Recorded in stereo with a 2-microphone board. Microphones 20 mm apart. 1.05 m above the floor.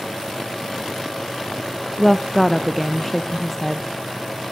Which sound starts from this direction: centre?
A woman speaking, at 2.0 s.